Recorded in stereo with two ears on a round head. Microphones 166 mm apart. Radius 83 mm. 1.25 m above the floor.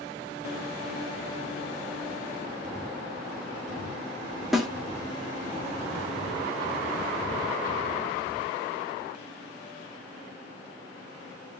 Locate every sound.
4.5 s a snare drum: centre (ahead or behind), 1.8 m